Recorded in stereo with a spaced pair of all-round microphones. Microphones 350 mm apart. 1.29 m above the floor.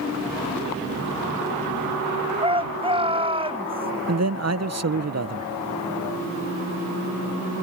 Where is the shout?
15° right (ahead or behind).